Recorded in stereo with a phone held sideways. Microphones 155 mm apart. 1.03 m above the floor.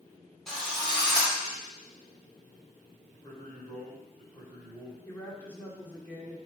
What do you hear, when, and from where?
0.5 s a drill: 5° left (ahead or behind), 2.5 m
3.1 s a man speaking: 25° left (ahead or behind), 3.5 m
5.0 s a woman speaking: 10° left (ahead or behind), 2 m